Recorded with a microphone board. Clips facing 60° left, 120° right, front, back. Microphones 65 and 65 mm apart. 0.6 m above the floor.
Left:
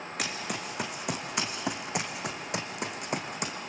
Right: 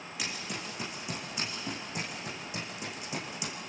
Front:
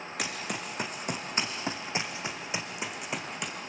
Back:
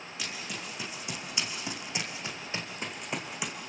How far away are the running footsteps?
About 3 m.